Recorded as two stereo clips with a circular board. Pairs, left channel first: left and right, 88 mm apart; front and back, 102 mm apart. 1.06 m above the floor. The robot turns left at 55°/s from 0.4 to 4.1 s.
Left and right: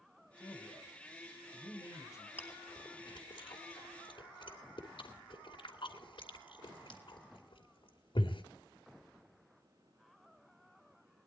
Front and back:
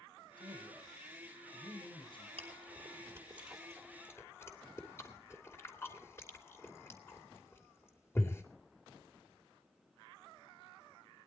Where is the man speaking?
135° left, 5 m; by 2.3 s 30° left, 5 m.